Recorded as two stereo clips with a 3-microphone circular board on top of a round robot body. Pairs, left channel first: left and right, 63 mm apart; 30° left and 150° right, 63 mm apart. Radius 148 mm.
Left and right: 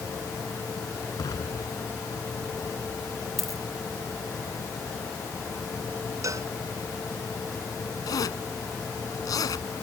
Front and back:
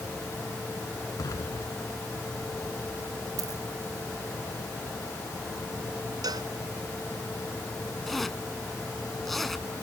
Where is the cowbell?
130° right.